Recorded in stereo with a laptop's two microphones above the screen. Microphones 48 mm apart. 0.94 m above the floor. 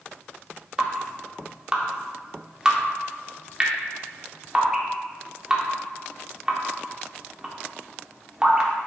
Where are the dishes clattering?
I don't hear dishes clattering.